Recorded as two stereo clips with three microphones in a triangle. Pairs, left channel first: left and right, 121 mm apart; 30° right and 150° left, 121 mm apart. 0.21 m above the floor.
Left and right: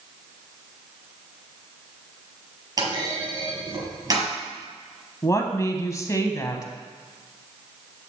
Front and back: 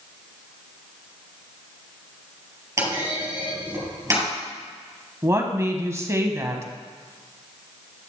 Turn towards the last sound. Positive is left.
turn(degrees=115)